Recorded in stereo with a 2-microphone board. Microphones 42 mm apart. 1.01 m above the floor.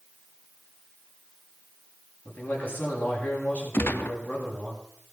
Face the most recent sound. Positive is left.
turn(degrees=65)  # may be behind; listen again after turning